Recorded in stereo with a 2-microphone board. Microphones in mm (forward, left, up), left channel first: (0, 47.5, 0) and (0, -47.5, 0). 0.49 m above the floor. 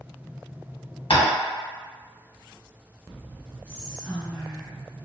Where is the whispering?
15° right (ahead or behind), 0.8 m.